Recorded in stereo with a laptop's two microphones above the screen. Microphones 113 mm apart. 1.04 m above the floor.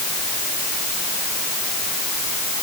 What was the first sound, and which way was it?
Only background noise.